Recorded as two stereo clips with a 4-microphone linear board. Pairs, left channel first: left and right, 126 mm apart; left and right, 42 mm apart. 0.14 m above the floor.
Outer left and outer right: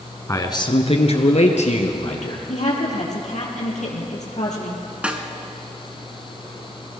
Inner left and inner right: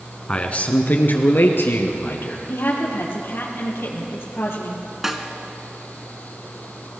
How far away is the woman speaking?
About 3.5 m.